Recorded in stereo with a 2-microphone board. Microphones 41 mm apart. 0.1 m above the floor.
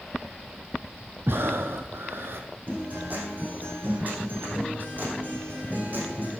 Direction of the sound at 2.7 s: 50° right (ahead or behind).